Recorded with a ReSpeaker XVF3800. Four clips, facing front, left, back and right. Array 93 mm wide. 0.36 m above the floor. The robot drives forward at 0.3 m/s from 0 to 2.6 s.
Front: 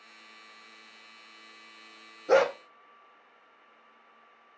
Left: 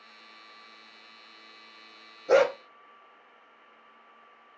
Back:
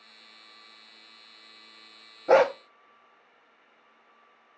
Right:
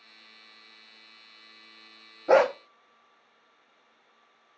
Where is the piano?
No piano in this recording.